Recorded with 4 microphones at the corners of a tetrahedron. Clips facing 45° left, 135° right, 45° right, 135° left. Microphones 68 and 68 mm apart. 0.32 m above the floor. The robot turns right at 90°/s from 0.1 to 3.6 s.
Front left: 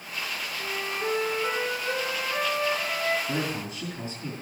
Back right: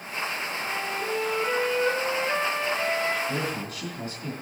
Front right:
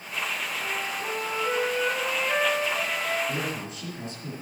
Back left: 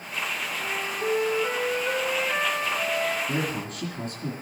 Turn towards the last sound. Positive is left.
turn(degrees=125)